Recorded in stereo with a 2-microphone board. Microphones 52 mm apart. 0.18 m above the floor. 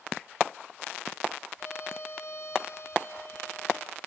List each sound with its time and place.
1.6 s a violin: 55° left (ahead or behind), 3.5 m